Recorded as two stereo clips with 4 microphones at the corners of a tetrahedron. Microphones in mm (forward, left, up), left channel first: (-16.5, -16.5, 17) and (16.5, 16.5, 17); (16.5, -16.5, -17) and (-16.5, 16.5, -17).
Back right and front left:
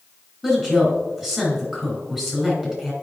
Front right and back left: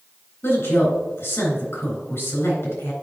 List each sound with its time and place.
0.4 s a woman speaking: 35° right, 3 m